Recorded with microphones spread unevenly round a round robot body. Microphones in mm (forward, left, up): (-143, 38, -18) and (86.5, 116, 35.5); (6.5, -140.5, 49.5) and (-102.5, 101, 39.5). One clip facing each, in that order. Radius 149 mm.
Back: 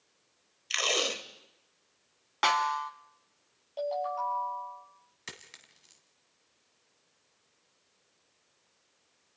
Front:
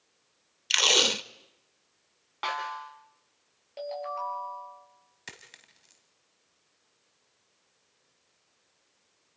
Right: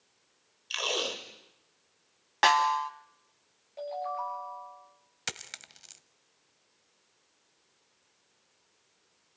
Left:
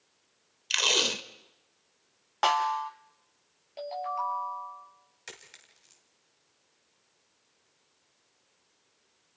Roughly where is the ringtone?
Left.